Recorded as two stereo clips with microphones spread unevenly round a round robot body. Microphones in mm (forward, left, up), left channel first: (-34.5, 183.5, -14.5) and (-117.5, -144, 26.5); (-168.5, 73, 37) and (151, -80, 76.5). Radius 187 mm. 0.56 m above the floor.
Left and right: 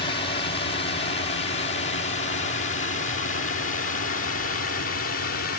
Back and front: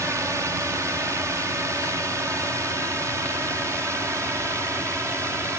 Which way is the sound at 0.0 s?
60° left.